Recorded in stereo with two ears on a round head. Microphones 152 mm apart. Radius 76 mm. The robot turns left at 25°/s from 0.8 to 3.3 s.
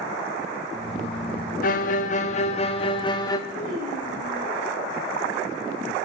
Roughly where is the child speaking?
Left.